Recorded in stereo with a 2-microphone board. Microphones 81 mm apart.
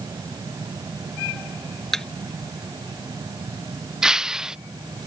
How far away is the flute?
No flute in this recording.